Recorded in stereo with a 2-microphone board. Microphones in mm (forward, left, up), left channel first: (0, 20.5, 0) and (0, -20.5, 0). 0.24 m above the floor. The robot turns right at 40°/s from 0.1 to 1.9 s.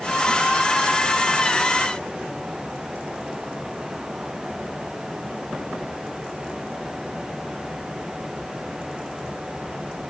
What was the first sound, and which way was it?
Only background noise.